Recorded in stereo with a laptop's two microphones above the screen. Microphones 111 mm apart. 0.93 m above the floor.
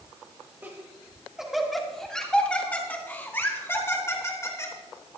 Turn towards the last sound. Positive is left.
turn(degrees=30)  # may be behind; listen again after turning